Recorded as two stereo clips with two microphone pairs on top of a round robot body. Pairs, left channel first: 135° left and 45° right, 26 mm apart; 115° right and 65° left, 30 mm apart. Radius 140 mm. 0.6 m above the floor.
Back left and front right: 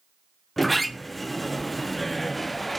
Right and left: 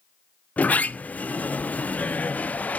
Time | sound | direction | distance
0.6 | a sliding door | 135° right | 0.6 m